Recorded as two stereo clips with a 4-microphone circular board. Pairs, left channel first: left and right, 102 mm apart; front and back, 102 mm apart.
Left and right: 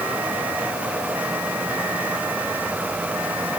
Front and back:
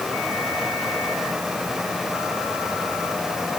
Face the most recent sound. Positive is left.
No sound to turn to.